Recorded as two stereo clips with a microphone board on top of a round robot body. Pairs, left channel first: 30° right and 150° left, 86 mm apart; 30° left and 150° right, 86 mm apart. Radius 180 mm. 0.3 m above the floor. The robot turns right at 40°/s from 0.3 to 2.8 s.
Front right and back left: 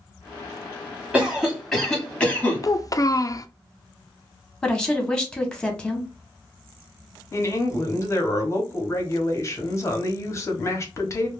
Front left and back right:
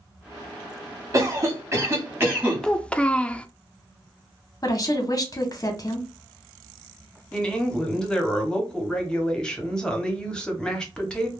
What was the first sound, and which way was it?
A cough, 140° right.